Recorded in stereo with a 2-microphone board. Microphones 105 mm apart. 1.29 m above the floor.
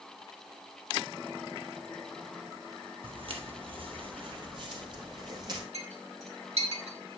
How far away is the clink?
About 4 m.